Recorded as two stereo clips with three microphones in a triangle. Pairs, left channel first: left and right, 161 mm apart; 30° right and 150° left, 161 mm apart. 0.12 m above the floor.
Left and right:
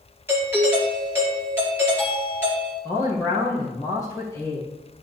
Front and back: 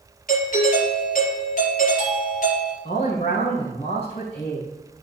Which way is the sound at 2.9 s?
20° left.